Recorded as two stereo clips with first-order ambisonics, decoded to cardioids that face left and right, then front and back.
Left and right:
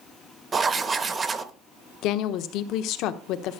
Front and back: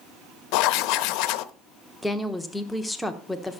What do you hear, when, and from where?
0.5 s writing: 20° right, 0.7 m
2.0 s a woman speaking: 90° left, 1.0 m